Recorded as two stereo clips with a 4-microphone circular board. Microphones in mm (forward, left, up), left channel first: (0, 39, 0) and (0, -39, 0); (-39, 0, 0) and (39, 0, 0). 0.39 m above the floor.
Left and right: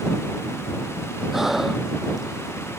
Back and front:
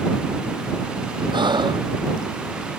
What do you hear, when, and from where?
1.3 s breathing: 5° right